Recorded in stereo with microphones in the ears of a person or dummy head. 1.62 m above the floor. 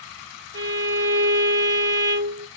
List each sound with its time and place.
0.5 s a violin: 20° right (ahead or behind), 0.8 m